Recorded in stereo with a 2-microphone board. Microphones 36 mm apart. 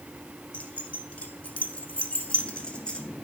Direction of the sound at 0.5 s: 40° left (ahead or behind).